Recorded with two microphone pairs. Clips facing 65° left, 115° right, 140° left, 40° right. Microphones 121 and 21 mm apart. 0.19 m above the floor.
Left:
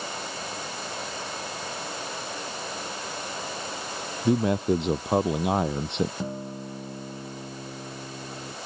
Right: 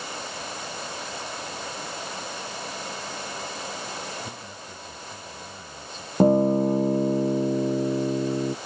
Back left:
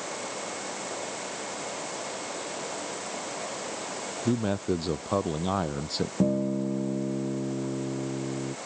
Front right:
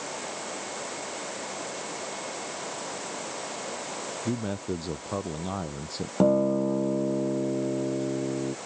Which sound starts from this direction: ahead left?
A man speaking, at 4.2 s.